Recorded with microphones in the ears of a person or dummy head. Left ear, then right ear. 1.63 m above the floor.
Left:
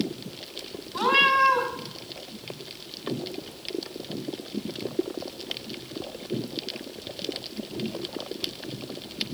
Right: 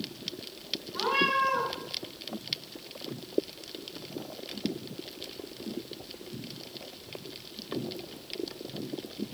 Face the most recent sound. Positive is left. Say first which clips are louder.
# left 7 dB
turn(degrees=40)  # may be behind; listen again after turning